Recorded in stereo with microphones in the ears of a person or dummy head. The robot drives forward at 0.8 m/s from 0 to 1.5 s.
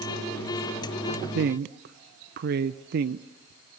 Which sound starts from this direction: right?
A woman speaking, at 1.3 s.